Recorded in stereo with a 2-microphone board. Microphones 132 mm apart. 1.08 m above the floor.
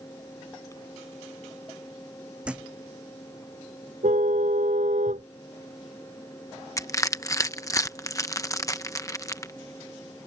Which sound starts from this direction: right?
A car horn, at 4.0 s.